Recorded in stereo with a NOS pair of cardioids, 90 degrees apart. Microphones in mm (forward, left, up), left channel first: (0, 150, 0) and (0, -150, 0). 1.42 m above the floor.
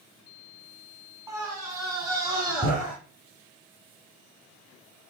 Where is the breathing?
I don't hear breathing.